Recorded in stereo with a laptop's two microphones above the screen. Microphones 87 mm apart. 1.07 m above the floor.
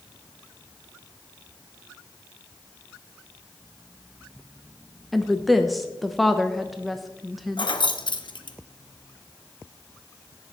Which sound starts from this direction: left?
Keys jangling, at 7.6 s.